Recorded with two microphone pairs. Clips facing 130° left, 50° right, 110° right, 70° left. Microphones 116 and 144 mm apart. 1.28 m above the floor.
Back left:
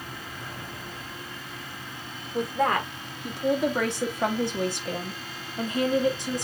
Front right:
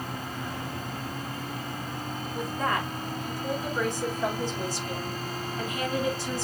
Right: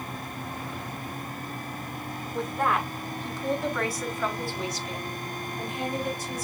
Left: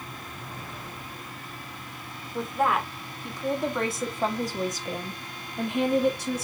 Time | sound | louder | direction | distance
2.3 | a woman speaking | back left 5 dB, left 2 dB | 160° left | 2.0 m